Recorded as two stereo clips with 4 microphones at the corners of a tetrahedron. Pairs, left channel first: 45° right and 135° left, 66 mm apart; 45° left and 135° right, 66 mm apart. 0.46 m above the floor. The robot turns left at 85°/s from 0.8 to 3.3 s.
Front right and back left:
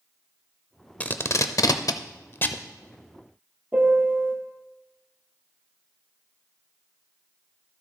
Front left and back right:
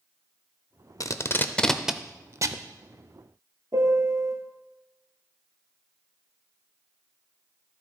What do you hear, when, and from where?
1.0 s tape being pulled: 20° left, 0.5 m; by 2.6 s 115° right, 0.5 m
3.7 s a piano: 160° right, 1.6 m